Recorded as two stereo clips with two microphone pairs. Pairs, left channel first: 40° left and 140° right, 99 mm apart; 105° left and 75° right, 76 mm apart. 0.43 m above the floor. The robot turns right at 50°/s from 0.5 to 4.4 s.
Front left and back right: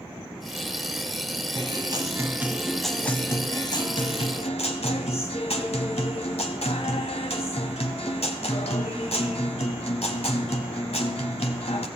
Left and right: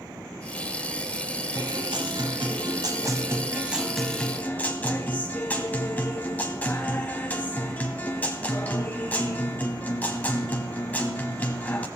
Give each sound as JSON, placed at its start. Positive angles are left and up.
{"t": 1.6, "sound": "a guitar", "azimuth_deg": -110, "distance_m": 1.4}